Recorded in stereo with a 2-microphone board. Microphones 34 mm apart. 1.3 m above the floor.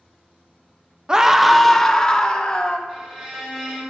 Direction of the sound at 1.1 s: 20° right (ahead or behind).